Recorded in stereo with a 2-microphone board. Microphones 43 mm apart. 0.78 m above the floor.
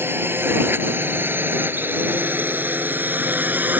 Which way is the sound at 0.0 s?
55° right (ahead or behind).